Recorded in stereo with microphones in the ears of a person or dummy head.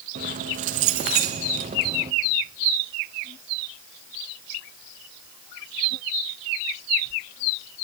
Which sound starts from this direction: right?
Keys jangling, at 0.1 s.